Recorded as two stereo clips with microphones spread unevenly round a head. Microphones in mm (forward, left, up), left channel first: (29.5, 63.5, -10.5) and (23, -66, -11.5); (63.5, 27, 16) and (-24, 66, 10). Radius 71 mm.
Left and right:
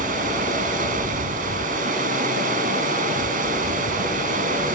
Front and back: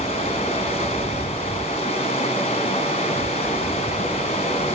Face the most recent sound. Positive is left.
turn(degrees=-75)